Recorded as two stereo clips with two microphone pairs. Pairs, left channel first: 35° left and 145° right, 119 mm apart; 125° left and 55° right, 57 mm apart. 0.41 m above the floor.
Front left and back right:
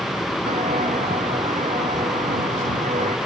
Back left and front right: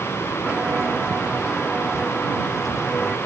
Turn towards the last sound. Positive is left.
turn(degrees=-150)